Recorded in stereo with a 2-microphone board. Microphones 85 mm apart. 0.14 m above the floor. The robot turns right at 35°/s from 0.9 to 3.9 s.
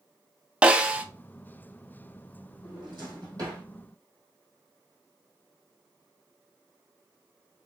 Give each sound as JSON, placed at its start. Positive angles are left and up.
{"t": 0.6, "sound": "a snare drum", "side_deg": -10, "distance_m": 0.6}
{"t": 2.6, "sound": "a drawer", "side_deg": -70, "distance_m": 3.0}